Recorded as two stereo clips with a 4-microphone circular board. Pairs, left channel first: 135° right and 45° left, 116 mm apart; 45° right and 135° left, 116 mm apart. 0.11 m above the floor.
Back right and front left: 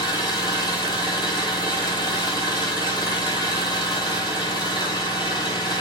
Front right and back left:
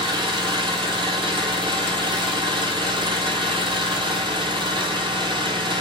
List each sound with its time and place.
0.0 s an engine running: 175° left, 0.8 m